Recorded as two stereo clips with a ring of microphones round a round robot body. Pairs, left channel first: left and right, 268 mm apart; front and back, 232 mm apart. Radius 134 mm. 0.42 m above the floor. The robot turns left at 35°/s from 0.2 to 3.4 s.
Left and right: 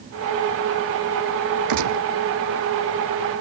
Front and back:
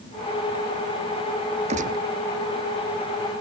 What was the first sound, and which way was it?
A gunshot, 110° right.